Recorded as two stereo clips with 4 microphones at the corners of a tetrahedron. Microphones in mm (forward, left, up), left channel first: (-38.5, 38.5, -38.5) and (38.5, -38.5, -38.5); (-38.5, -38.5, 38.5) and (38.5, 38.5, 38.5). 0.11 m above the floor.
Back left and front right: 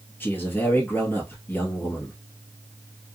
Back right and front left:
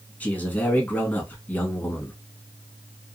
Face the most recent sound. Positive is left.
turn(degrees=170)